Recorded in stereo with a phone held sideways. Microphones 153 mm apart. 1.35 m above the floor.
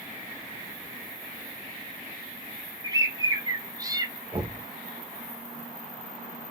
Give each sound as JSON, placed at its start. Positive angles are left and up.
{"t": 2.8, "sound": "a bird", "side_deg": -25, "distance_m": 0.7}
{"t": 4.3, "sound": "knocking", "side_deg": -35, "distance_m": 1.0}